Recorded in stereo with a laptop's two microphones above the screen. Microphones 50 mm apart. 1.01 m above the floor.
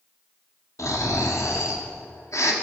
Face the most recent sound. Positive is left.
turn(degrees=80)